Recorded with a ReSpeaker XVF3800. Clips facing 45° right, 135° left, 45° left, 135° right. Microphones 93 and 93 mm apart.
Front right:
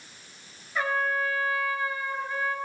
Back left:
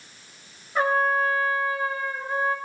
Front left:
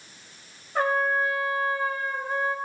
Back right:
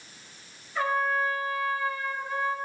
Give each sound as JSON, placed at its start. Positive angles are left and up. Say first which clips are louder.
{"t": 0.8, "sound": "a trumpet", "louder": "back left 5 dB, front left 3 dB", "azimuth_deg": 80, "distance_m": 0.9}